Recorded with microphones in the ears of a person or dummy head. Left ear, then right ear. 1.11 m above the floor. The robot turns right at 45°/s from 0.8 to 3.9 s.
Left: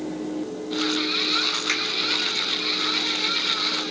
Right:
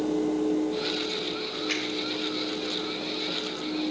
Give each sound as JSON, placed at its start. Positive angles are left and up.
{"t": 1.7, "sound": "a finger snap", "side_deg": 85, "distance_m": 6.5}